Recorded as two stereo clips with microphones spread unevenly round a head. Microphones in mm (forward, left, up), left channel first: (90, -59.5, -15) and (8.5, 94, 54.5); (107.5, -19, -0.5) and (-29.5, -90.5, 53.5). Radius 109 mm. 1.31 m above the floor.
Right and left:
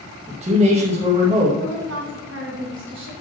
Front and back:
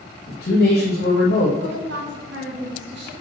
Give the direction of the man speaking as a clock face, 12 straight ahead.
10 o'clock.